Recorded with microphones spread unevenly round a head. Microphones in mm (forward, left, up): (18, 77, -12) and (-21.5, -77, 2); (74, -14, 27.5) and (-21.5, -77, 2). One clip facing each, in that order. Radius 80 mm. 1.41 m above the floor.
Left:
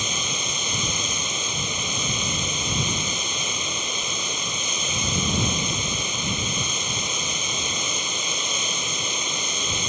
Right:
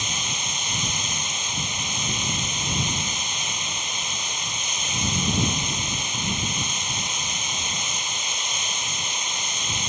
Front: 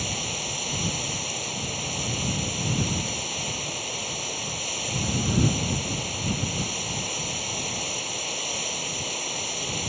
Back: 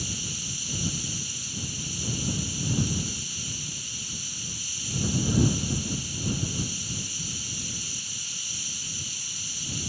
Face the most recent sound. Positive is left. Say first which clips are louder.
# left 3 dB, front 5 dB
turn(degrees=90)